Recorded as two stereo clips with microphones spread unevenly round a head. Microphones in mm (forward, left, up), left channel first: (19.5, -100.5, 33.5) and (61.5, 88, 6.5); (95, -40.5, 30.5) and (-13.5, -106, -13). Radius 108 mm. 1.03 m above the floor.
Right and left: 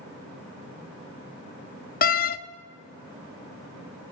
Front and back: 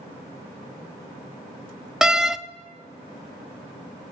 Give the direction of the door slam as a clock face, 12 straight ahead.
2 o'clock.